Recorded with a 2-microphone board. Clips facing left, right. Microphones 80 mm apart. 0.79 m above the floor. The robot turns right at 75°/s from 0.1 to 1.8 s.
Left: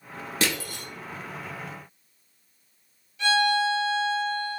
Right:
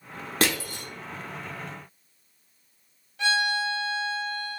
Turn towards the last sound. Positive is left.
turn(degrees=-55)  # may be behind; listen again after turning